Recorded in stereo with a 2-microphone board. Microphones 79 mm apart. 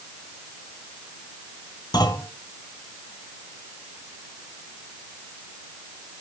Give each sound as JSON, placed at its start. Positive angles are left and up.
{"t": 1.9, "sound": "a clunk", "side_deg": 60, "distance_m": 2.5}